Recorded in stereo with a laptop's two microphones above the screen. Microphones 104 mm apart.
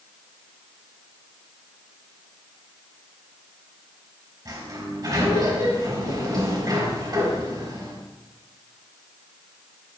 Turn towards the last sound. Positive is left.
turn(degrees=-40)  # may be behind; listen again after turning